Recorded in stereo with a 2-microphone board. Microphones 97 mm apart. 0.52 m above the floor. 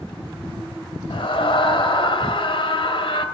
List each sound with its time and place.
1.1 s a scream: 55° left (ahead or behind), 1.8 m